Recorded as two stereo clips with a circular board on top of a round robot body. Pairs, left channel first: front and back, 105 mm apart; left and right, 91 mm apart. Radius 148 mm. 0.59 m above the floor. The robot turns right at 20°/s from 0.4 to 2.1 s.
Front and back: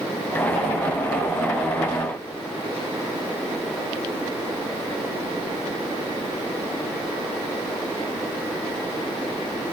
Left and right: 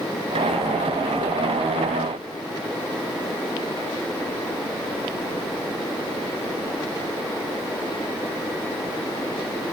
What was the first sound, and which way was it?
Only background noise.